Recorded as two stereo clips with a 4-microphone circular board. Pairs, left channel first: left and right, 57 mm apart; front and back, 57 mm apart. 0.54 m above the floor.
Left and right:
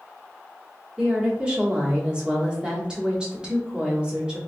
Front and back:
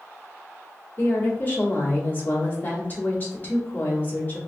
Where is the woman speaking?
30° right, 1.1 m.